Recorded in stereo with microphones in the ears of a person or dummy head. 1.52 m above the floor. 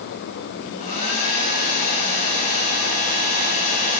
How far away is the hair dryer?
About 8.5 m.